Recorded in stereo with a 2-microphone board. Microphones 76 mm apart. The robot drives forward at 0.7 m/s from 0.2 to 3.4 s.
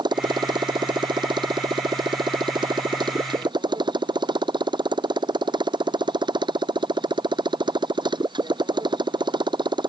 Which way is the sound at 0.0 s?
80° right.